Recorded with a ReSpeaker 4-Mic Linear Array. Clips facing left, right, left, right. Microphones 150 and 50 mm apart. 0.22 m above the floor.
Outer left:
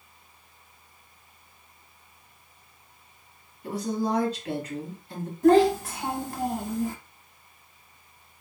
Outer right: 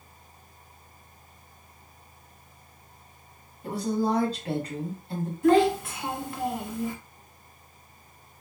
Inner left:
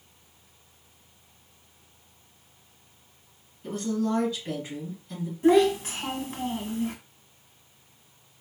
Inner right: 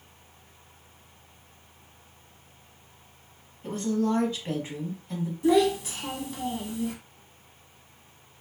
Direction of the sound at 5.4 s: 40° left (ahead or behind).